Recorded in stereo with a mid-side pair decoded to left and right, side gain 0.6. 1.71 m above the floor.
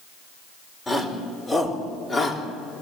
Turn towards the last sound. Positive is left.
turn(degrees=30)